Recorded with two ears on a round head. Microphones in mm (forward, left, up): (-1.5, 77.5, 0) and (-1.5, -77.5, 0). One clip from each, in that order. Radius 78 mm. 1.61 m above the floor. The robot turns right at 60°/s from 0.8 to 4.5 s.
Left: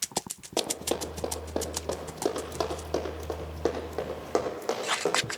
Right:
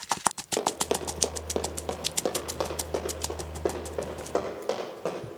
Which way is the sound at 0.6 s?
20° right (ahead or behind).